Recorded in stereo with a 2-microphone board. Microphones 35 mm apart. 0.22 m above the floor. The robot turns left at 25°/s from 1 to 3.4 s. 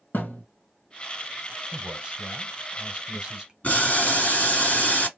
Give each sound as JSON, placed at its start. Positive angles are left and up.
{"t": 0.1, "sound": "a thud", "side_deg": 65, "distance_m": 1.5}
{"t": 1.7, "sound": "a man speaking", "side_deg": -15, "distance_m": 1.0}
{"t": 3.6, "sound": "boiling", "side_deg": 45, "distance_m": 2.5}